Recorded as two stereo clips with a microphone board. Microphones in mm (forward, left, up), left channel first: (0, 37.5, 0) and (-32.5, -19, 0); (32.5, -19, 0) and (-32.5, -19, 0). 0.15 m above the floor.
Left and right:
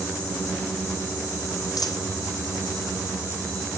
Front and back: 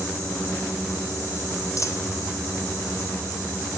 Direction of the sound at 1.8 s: 40° left.